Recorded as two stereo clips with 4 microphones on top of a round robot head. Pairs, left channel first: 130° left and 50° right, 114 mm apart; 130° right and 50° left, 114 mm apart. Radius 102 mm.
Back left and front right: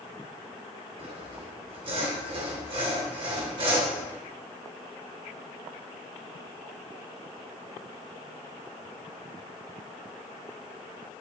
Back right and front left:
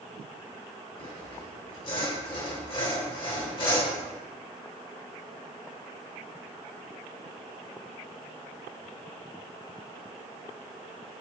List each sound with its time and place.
1.0 s sawing: 90° right, 2.5 m